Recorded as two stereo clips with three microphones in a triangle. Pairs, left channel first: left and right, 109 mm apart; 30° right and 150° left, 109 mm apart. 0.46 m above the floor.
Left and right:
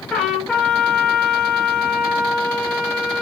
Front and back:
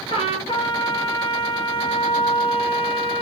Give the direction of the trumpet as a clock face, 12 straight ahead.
12 o'clock.